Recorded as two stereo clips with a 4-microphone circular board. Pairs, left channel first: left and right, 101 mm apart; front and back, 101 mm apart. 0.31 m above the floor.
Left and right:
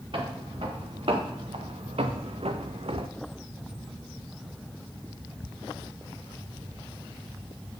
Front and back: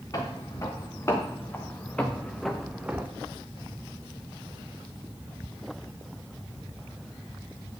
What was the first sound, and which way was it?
Footsteps, 60° right.